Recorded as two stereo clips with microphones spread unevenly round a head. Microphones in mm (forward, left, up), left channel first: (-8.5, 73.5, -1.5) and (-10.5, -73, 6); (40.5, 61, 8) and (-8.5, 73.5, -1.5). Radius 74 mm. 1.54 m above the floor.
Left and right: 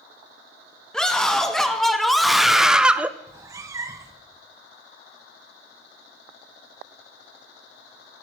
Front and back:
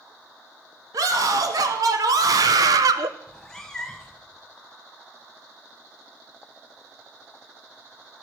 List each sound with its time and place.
0.9 s a scream: 175° left, 2.0 m; by 3.1 s 170° right, 0.5 m
3.3 s a cat meowing: 55° right, 0.7 m